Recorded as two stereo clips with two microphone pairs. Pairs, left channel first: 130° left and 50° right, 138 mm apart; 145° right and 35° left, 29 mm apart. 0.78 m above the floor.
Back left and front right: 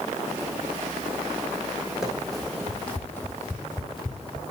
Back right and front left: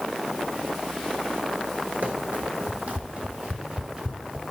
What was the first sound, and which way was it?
Running footsteps, 35° left.